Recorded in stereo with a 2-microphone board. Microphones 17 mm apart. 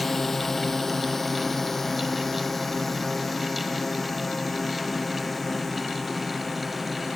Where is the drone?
15° left (ahead or behind); by 7.2 s 5° left (ahead or behind).